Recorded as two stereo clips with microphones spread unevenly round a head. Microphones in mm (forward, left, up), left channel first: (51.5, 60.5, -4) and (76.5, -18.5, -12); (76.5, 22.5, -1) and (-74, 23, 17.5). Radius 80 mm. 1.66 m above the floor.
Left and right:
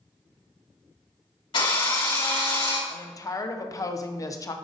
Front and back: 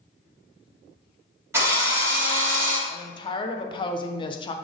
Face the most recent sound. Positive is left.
turn(degrees=60)